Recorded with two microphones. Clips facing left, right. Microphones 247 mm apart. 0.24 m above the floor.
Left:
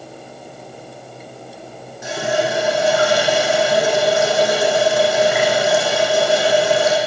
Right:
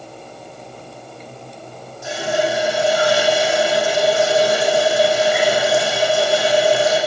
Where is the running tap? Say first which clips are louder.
Even; 85° left, 7.5 m.